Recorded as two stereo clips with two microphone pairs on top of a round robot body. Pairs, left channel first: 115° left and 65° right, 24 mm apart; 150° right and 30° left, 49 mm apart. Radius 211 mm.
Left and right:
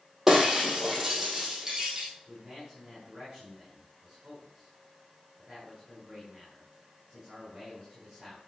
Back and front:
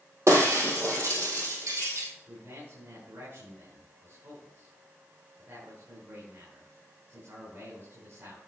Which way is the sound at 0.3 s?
10° left.